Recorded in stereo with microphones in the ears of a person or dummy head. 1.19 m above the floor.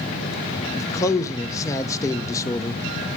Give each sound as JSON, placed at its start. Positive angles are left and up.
{"t": 0.8, "sound": "a man speaking", "side_deg": 15, "distance_m": 0.8}